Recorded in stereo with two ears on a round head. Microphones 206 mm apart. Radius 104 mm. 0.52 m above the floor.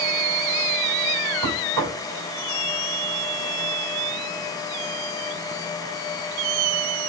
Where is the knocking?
65° right (ahead or behind), 1.6 m.